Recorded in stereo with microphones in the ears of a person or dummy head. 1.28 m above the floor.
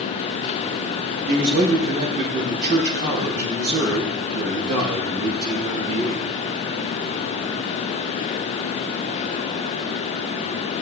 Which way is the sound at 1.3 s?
55° right (ahead or behind).